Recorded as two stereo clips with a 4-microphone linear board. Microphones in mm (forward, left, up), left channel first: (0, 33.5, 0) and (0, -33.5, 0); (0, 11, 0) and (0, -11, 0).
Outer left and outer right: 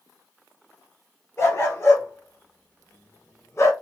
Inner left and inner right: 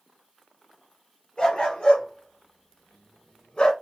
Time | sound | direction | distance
1.4 | a dog barking | 40° left (ahead or behind) | 2.5 m